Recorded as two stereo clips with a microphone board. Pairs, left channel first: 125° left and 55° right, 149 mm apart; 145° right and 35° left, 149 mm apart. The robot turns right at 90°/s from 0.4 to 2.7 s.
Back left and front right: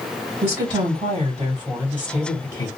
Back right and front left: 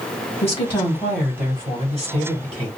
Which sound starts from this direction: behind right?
A woman speaking, at 0.4 s.